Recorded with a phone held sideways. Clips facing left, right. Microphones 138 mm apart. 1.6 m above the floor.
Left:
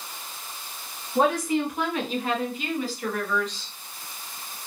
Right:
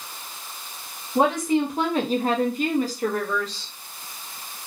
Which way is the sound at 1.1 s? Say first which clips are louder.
Right 2 dB; 15° right (ahead or behind).